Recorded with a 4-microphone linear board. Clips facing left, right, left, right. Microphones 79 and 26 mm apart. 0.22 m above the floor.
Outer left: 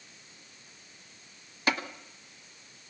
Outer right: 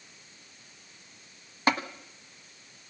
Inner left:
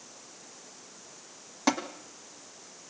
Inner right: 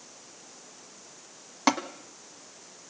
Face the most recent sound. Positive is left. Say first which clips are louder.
# outer right 4 dB, inner right 3 dB
turn(degrees=-30)  # may be behind; listen again after turning